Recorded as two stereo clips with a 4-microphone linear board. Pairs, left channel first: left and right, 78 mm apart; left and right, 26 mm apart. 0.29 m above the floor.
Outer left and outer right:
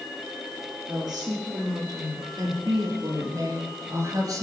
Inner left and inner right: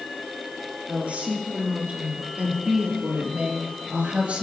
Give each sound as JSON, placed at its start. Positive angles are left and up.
{"t": 0.9, "sound": "a woman speaking", "side_deg": -65, "distance_m": 6.5}